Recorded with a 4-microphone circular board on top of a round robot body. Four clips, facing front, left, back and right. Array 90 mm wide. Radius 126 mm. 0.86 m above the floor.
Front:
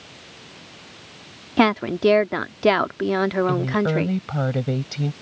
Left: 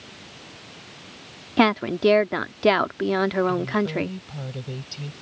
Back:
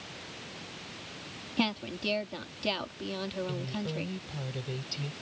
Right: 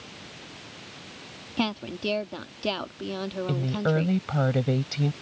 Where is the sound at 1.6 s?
35° left.